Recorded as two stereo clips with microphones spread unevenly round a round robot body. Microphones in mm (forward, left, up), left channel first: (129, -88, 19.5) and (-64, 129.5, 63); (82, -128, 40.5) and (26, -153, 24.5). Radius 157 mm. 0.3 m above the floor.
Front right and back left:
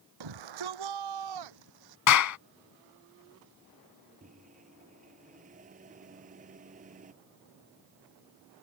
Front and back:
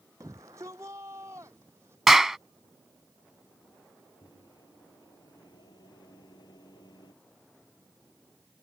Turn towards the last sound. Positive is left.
turn(degrees=65)